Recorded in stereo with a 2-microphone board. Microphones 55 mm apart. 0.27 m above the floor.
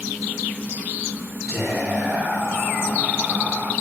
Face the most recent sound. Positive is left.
turn(degrees=-20)  # may be behind; listen again after turning